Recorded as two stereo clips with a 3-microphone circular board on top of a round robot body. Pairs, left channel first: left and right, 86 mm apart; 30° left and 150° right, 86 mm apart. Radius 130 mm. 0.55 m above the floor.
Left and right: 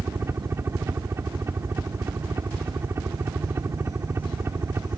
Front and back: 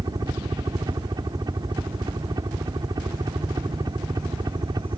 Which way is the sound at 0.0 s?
140° right.